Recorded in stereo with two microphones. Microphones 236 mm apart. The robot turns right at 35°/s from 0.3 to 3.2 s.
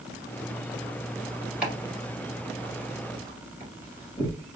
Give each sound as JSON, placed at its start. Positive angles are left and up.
{"t": 1.6, "sound": "chopping", "side_deg": -5, "distance_m": 1.8}